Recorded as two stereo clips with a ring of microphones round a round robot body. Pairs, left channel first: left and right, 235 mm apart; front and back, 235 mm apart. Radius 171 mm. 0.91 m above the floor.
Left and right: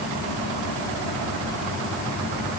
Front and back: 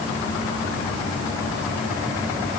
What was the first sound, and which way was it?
Only background noise.